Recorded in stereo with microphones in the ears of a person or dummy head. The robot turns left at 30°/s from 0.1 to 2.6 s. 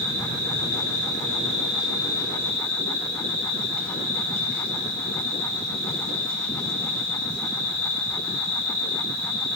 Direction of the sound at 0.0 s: 115° left.